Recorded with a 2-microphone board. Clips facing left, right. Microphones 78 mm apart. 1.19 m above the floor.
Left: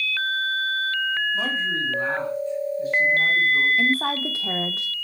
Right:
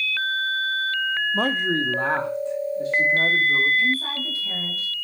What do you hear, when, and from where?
1.3 s a man speaking: 45° right (ahead or behind), 0.6 m; by 3.7 s 80° right, 3.5 m
3.8 s a woman speaking: 85° left, 1.0 m